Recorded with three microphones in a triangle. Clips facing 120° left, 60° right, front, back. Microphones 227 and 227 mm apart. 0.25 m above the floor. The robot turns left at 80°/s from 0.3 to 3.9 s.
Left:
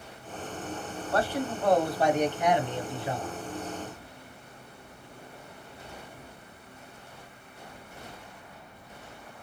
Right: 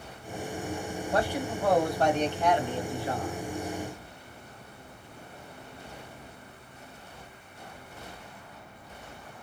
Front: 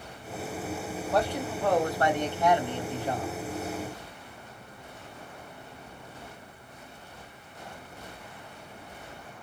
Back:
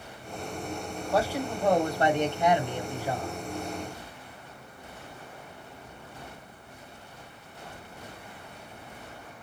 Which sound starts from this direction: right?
A man speaking, at 1.1 s.